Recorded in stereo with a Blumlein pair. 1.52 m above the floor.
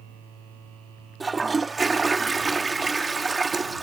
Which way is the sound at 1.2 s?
10° right.